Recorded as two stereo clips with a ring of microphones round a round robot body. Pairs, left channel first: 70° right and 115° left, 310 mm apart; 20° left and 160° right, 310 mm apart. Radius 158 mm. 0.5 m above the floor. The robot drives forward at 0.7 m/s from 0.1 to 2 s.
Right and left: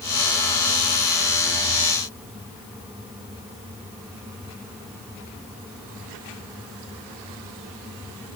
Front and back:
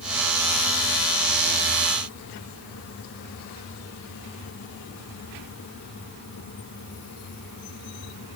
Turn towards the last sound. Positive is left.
No sound to turn to.